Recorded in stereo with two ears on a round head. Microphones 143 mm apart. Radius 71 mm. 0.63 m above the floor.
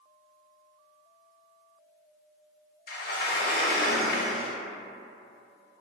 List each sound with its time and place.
2.9 s a sliding door: 60° left (ahead or behind), 0.6 m